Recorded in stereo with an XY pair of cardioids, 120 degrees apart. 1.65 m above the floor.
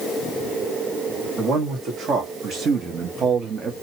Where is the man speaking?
60° right, 1.8 m; by 3.7 s 35° right, 0.6 m.